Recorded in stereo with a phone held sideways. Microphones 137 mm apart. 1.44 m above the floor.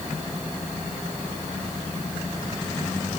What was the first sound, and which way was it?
Only background noise.